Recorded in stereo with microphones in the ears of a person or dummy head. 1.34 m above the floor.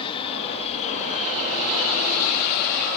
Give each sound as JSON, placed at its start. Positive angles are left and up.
{"t": 0.0, "sound": "an aircraft", "side_deg": 30}